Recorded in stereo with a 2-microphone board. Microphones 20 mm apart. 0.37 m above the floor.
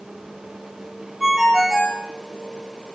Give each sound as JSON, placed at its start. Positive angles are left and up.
{"t": 1.2, "sound": "a ringtone", "side_deg": -10, "distance_m": 2.5}